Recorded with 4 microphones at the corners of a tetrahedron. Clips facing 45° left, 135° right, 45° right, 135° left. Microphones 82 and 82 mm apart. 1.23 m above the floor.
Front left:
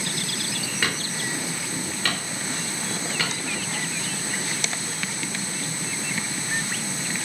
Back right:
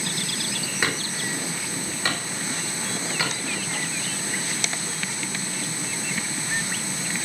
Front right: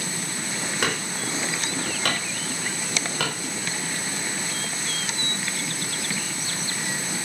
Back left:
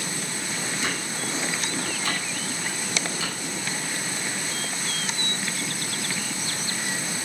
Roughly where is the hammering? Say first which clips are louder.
Back right 1 dB, front right 2 dB; ahead right.